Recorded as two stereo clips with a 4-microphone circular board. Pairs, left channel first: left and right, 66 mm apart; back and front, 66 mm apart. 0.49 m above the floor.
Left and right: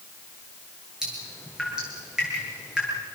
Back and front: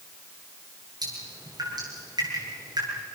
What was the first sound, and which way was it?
Dripping, 10° right.